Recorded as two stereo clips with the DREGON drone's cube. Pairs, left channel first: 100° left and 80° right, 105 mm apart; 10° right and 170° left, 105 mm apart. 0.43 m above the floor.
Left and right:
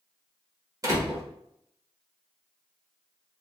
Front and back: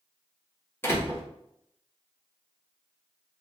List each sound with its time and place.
0.8 s a door slam: 65° right, 1.1 m